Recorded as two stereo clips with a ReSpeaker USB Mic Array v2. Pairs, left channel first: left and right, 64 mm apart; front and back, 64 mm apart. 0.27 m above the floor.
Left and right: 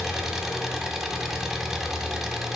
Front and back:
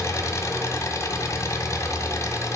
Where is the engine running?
10° right, 1.5 m.